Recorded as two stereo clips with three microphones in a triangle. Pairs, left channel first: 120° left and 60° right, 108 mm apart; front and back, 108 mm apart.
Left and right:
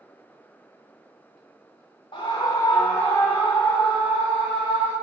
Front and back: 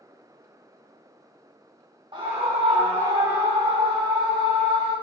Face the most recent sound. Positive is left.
turn(degrees=-155)